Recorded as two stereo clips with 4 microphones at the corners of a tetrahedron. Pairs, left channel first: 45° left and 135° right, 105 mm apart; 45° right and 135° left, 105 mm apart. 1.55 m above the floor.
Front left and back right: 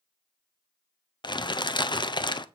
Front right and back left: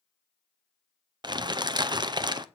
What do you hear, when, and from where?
1.2 s crumpling: 90° left, 0.6 m